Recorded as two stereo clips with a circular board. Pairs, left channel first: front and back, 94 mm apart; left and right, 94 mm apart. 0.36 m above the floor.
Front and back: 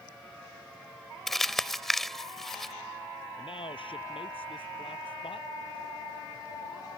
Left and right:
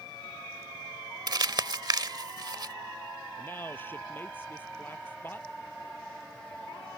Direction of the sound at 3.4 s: 20° left.